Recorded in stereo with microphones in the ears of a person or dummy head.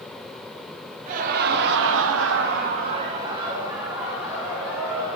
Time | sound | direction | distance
1.1 | laughter | 50° right (ahead or behind) | 0.8 m